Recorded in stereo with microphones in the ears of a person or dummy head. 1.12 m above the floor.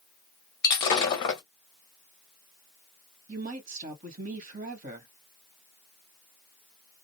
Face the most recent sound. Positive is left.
turn(degrees=-50)  # may be behind; listen again after turning